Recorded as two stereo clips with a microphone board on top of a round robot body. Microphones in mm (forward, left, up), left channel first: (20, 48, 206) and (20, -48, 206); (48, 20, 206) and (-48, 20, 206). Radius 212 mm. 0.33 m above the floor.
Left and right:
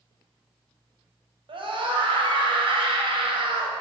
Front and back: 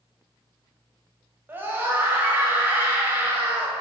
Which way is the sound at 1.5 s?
115° right.